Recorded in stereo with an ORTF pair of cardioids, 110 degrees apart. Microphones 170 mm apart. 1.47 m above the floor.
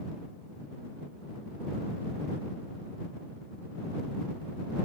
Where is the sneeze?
I don't hear a sneeze.